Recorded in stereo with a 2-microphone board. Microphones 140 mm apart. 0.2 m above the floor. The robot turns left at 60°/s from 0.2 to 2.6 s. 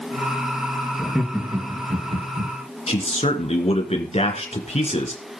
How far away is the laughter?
About 3.5 m.